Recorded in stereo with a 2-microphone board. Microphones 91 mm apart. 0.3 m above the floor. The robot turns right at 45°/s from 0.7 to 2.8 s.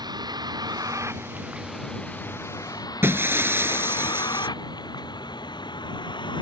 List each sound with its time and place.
0.0 s a vehicle: 55° right (ahead or behind); by 6.4 s 60° left (ahead or behind)
3.0 s breaking glass: 25° right (ahead or behind)